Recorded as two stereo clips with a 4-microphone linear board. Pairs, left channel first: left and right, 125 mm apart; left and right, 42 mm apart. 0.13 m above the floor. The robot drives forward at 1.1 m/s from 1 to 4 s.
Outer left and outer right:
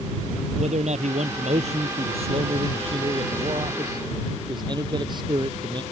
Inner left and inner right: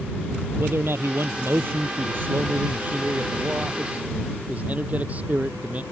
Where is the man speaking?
65° right (ahead or behind); by 5.8 s 35° right (ahead or behind).